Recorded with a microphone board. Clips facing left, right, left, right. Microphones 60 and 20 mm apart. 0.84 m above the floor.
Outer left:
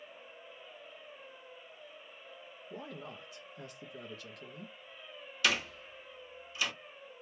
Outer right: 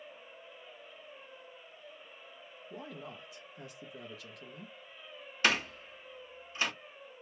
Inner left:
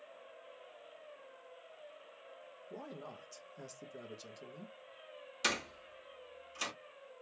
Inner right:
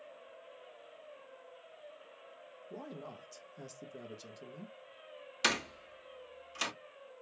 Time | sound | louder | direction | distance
2.7 | a man speaking | even, inner right 1 dB | centre (ahead or behind) | 0.6 m
5.4 | a door slam | outer right 2 dB, inner right 3 dB | 35° right (ahead or behind) | 1.1 m